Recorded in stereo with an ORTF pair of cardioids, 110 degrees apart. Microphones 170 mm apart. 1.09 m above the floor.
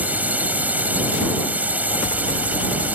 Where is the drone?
10° right.